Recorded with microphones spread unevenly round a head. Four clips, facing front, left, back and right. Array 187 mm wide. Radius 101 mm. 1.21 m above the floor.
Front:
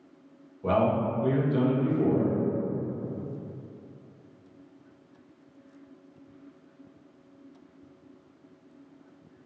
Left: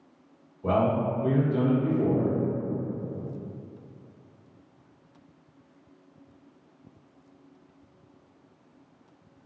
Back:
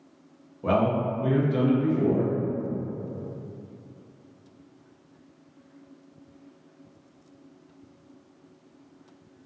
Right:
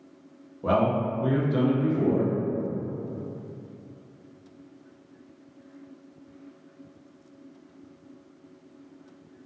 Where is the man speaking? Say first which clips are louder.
Right 1 dB, back 1 dB; 110° right, 0.8 m.